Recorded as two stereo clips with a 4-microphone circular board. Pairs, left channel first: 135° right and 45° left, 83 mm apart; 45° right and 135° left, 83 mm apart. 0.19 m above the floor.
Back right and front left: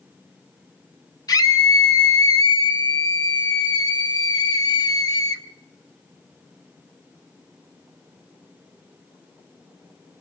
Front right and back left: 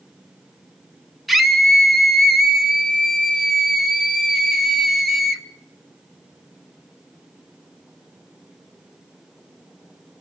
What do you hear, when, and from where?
1.3 s a scream: 135° right, 1.5 m